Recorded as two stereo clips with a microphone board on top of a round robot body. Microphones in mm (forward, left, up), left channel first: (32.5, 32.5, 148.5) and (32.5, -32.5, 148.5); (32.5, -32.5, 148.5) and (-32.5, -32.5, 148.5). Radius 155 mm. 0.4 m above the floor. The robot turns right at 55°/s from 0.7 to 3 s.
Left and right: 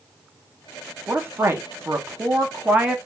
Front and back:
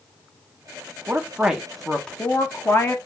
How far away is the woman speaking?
About 0.9 m.